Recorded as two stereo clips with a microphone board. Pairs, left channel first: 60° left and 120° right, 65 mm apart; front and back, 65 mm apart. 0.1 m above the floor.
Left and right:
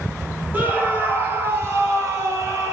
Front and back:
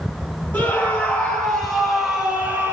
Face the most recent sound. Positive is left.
turn(degrees=-135)